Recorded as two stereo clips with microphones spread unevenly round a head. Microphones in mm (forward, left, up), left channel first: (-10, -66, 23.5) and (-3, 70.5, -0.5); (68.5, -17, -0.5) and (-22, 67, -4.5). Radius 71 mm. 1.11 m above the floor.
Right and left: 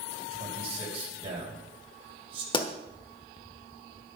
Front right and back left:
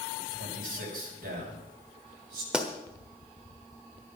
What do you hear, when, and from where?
0.3 s a man speaking: 140° left, 6 m
2.5 s a pop: 140° right, 1.2 m